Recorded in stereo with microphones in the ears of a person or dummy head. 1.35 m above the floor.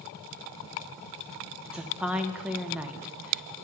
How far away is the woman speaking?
About 0.6 m.